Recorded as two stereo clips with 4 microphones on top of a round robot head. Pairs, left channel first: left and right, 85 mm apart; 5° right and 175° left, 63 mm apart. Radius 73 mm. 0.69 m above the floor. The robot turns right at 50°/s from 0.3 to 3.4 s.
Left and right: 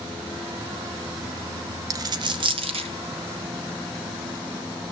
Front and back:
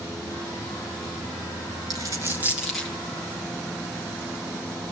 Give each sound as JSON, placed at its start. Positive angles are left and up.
{"t": 1.9, "sound": "a dropped coin", "azimuth_deg": -135, "distance_m": 1.4}